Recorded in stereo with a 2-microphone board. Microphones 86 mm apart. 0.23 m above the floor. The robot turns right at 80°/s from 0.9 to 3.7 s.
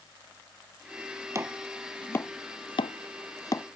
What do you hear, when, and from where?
1.4 s chopping: 35° right (ahead or behind); by 3.7 s 30° left (ahead or behind)